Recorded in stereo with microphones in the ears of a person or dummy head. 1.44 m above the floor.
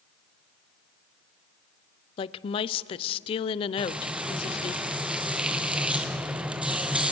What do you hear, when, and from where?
2.2 s a woman speaking: 30° left (ahead or behind), 0.5 m
3.8 s frying: centre (ahead or behind), 0.8 m